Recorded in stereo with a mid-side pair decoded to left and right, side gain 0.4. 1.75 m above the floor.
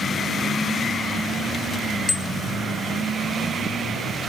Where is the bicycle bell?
30° left.